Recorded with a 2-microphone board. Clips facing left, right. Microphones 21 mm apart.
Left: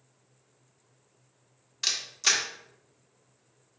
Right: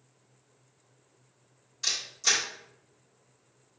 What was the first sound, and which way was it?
A camera shutter, 35° left (ahead or behind).